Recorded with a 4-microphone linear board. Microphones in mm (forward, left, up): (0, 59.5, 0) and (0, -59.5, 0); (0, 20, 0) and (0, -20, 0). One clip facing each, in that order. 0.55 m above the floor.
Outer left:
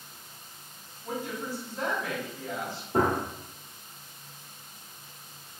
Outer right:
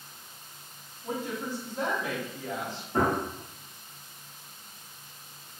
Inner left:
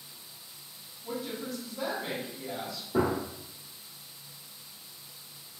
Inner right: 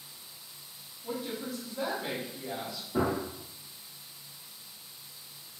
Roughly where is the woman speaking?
Centre.